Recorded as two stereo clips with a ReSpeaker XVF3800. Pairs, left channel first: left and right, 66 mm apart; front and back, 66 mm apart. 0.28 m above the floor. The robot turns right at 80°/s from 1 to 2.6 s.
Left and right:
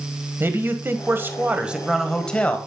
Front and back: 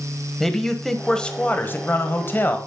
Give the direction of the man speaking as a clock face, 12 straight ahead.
3 o'clock.